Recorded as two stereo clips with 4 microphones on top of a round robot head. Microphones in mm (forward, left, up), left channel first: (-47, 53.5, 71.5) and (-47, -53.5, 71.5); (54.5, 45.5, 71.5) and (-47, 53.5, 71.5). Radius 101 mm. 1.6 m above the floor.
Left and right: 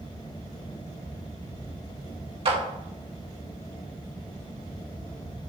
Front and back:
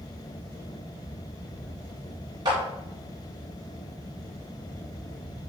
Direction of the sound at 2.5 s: 125° right.